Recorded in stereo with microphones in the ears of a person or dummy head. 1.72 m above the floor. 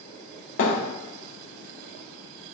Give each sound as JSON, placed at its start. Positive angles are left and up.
{"t": 0.6, "sound": "a thud", "side_deg": 60, "distance_m": 2.0}